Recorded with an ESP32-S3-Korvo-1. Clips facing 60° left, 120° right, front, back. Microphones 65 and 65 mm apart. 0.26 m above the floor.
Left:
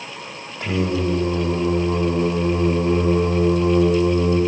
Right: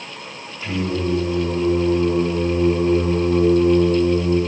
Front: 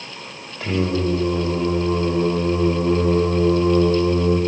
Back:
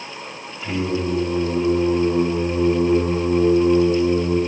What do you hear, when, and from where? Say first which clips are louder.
0.6 s singing: left 1 dB, front 2 dB; 15° left, 4 m